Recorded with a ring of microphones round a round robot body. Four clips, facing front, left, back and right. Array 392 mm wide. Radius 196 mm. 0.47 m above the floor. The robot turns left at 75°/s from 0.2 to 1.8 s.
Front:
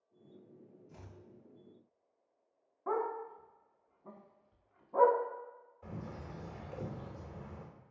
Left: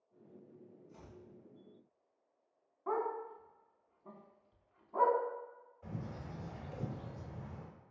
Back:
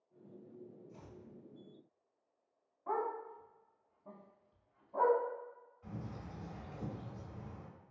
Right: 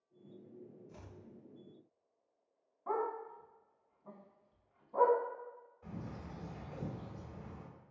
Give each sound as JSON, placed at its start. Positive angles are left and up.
{"t": 0.9, "sound": "chopping", "azimuth_deg": -25, "distance_m": 0.5}
{"t": 2.9, "sound": "a dog barking", "azimuth_deg": 10, "distance_m": 1.1}
{"t": 5.8, "sound": "a bird", "azimuth_deg": -5, "distance_m": 1.7}